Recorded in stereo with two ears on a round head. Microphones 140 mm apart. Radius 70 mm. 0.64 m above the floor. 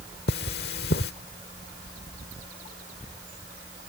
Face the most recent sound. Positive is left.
turn(degrees=75)  # may be behind; listen again after turning